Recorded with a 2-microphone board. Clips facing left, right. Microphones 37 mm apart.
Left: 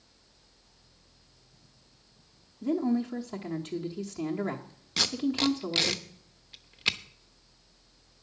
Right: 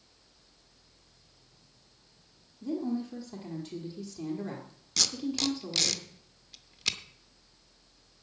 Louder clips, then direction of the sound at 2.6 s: Left 5 dB; 35° left (ahead or behind).